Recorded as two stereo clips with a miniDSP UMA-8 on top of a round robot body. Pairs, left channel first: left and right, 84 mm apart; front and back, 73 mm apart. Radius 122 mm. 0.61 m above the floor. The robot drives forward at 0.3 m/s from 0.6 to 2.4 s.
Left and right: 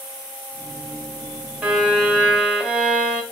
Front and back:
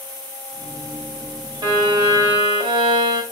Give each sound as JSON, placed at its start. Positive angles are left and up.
{"t": 1.6, "sound": "a violin", "azimuth_deg": -170, "distance_m": 4.0}